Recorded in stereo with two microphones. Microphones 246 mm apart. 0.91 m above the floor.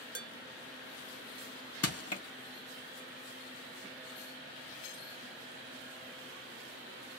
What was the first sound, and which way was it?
Dishes clattering, 80° right.